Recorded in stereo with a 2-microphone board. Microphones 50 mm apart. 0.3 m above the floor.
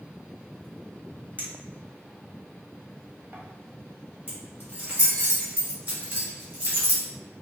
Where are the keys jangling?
35° right (ahead or behind), 1.7 m.